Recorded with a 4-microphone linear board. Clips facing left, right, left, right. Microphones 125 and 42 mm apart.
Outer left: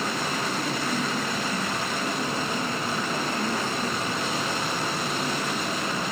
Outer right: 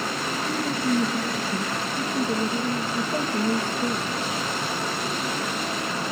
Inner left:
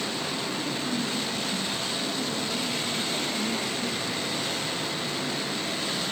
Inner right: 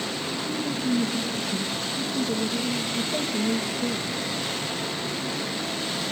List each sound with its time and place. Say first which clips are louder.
0.5 s a woman speaking: outer right 4 dB, inner right 3 dB; 40° right (ahead or behind), 3 m